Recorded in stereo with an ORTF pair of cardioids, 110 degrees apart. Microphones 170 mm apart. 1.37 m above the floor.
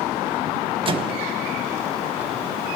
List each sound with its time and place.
0.8 s a microwave: 30° right, 1.3 m